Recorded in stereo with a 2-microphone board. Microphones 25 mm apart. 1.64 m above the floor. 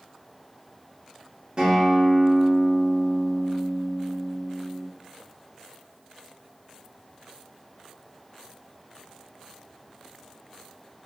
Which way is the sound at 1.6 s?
30° right (ahead or behind).